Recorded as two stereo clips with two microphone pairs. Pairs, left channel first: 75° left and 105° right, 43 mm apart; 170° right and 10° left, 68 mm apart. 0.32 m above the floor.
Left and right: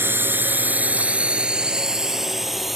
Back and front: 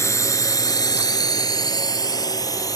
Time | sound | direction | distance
0.0 | a drone | 130° right | ?